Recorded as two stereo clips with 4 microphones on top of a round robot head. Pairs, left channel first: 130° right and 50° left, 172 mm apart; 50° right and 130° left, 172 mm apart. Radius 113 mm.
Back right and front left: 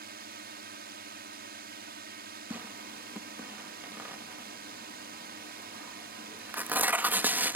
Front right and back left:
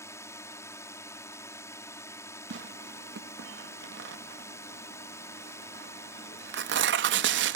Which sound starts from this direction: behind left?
Tearing paper, at 2.5 s.